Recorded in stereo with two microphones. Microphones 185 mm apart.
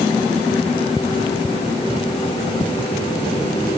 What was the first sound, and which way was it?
Only background noise.